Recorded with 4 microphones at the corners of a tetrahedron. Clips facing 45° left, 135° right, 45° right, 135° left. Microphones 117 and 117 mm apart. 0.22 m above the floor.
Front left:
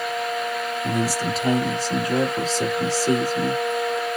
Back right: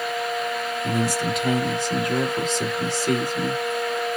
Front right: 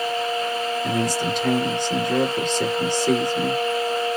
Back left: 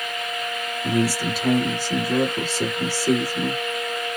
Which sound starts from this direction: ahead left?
A man speaking, at 0.8 s.